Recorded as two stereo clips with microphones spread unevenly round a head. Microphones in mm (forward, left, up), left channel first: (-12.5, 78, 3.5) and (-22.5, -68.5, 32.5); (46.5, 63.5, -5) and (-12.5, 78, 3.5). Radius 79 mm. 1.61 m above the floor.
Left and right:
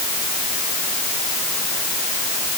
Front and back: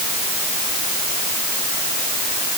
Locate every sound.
Only background noise.